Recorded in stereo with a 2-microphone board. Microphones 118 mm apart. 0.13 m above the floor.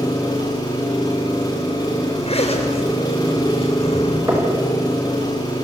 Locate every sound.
0.0 s an engine running: 35° left (ahead or behind), 6.5 m
2.2 s a zipper: 60° left (ahead or behind), 8 m
4.3 s knocking: 25° right (ahead or behind), 6 m